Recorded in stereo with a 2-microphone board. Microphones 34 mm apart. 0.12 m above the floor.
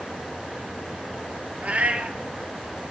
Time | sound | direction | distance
1.6 | a cat meowing | 45° right (ahead or behind) | 1.3 m